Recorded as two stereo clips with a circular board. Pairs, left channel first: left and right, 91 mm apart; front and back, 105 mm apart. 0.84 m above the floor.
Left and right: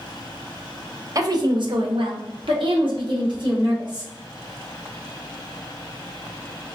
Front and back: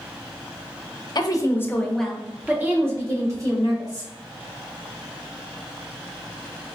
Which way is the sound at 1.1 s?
40° right.